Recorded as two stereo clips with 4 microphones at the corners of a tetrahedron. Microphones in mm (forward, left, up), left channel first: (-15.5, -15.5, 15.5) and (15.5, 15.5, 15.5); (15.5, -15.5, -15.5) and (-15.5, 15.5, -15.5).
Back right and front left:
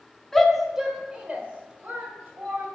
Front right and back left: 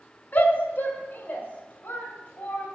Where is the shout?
55° right, 1.3 m; by 2.6 s 5° left, 3 m.